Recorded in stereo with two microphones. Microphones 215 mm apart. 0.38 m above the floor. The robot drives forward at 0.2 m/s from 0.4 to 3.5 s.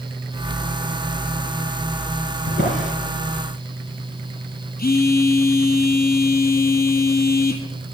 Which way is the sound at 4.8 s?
45° left (ahead or behind).